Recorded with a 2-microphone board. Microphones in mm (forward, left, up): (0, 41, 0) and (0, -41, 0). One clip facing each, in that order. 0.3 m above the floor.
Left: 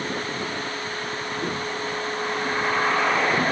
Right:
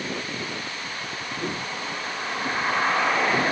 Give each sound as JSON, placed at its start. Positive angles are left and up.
{"t": 1.4, "sound": "footsteps", "side_deg": 0, "distance_m": 10.0}